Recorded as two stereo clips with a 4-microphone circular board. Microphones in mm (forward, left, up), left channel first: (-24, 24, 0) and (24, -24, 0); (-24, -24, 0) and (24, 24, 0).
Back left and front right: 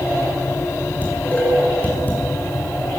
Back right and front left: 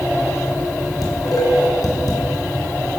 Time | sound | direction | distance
1.0 | dishes clattering | 160° right | 6.5 m